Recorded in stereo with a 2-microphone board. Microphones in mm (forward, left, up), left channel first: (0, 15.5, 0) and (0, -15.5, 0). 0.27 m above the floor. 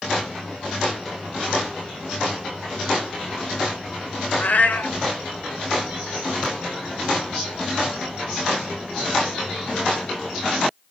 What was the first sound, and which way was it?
A cat meowing, 70° left (ahead or behind).